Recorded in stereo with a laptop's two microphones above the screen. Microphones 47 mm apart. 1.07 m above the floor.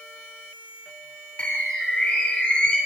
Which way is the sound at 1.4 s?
30° left (ahead or behind).